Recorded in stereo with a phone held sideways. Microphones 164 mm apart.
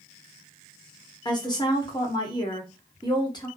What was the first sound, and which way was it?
A woman speaking, 25° left (ahead or behind).